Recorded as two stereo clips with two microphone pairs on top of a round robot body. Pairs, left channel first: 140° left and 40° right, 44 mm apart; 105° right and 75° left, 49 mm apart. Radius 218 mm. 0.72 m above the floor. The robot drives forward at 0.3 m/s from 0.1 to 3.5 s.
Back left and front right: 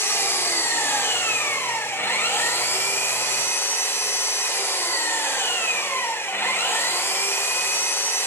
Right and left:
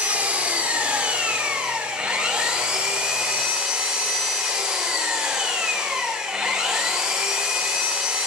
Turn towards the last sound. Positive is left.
turn(degrees=145)